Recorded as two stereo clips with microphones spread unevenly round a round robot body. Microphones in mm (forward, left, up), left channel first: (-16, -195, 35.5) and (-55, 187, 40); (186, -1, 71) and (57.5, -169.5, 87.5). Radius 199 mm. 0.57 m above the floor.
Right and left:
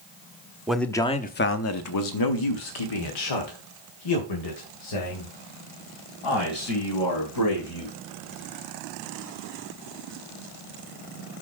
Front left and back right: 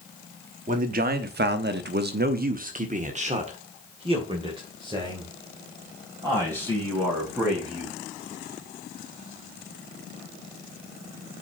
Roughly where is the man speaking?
Behind.